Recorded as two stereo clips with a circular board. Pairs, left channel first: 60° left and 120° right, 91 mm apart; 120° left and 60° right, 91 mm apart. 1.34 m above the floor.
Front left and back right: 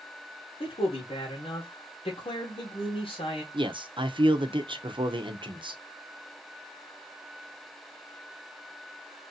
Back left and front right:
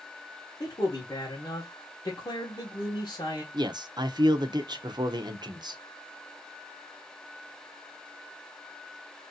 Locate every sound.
0.6 s a man speaking: 70° left, 1.6 m
3.5 s a man speaking: 100° right, 0.7 m